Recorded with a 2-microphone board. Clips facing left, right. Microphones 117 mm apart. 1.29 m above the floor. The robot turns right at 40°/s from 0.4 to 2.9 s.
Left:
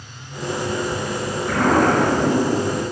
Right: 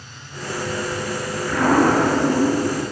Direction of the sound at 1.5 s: 45° left.